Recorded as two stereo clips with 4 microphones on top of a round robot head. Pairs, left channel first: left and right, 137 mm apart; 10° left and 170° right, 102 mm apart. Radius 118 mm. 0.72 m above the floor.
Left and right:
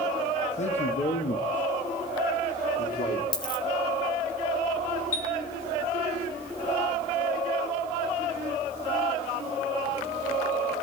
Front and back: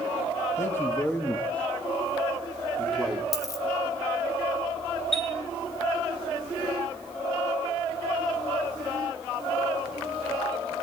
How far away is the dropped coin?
About 0.7 m.